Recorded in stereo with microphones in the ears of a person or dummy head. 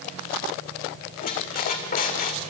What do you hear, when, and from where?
1.2 s a squeak: 40° left (ahead or behind), 2.5 m